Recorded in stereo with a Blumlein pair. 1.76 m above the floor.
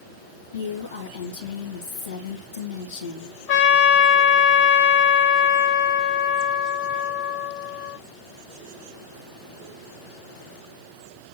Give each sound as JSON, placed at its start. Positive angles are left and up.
{"t": 0.5, "sound": "a woman speaking", "azimuth_deg": 70, "distance_m": 2.5}
{"t": 3.5, "sound": "a trumpet", "azimuth_deg": 45, "distance_m": 1.6}